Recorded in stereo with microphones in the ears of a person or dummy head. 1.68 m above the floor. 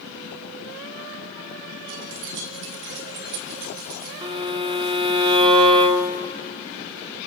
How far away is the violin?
About 1.4 m.